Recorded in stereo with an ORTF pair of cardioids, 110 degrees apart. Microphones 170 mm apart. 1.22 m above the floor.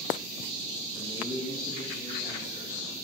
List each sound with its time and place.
0.9 s a man speaking: 10° left, 0.6 m; by 2.8 s 45° left, 3 m